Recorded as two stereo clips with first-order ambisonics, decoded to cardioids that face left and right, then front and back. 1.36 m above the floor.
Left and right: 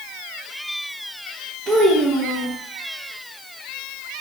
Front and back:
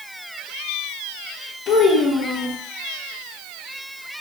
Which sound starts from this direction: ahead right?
A child speaking, at 1.7 s.